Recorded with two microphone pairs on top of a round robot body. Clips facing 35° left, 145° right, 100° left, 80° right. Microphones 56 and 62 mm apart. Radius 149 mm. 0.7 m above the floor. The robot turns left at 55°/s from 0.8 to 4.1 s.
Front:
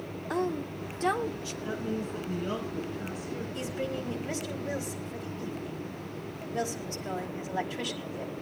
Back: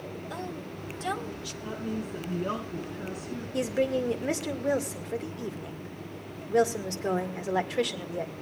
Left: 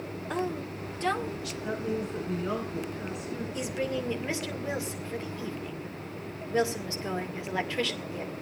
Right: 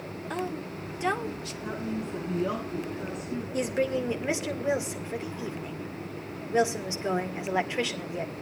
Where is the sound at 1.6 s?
65° right, 9 m; by 3.4 s 165° right, 9 m.